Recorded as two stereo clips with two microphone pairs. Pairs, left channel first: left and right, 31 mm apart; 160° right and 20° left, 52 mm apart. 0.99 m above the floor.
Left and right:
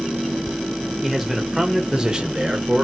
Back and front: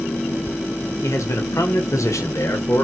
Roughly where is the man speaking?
Behind.